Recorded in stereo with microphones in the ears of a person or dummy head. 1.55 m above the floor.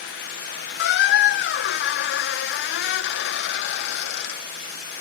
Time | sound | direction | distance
0.8 | a squeak | 65° left (ahead or behind) | 0.8 m